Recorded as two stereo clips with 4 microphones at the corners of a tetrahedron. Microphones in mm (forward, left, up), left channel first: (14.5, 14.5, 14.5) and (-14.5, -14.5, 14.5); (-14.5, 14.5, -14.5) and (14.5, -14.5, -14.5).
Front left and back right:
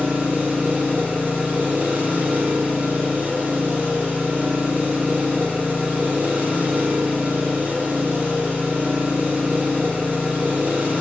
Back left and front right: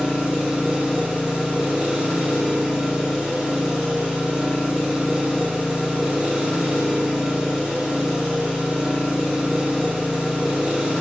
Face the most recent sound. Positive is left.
turn(degrees=-115)